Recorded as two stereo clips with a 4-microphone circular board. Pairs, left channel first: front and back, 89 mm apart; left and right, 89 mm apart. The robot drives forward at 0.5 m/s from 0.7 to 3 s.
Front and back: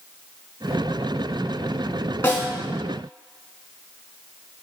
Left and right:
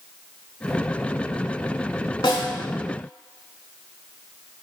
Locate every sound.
2.2 s a snare drum: 70° left, 0.7 m; by 2.5 s 80° left, 0.7 m